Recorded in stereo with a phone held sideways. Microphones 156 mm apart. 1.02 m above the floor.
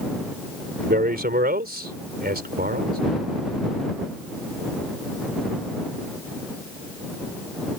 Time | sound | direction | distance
0.8 | a man speaking | 80° right | ?